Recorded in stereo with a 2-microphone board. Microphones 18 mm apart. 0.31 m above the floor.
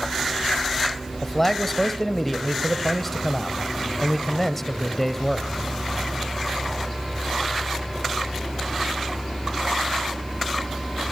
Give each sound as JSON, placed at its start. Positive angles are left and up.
{"t": 1.2, "sound": "a man speaking", "side_deg": 10, "distance_m": 1.3}